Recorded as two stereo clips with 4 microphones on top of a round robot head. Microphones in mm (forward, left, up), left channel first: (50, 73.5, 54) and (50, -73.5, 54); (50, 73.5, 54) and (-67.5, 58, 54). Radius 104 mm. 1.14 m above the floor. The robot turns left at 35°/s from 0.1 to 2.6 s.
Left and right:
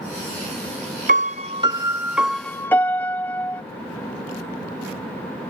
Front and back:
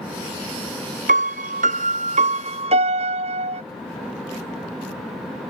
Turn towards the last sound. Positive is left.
turn(degrees=170)